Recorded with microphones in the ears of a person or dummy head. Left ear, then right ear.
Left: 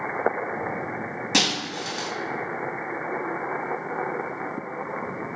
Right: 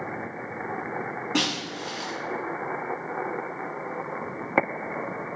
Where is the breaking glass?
85° left, 4 m.